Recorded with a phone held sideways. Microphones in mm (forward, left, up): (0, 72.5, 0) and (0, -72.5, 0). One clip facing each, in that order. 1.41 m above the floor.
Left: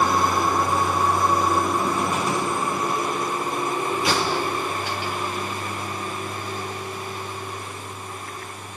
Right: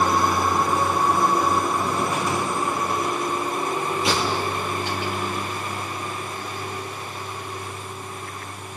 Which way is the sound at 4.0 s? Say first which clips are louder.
Even; 30° right (ahead or behind).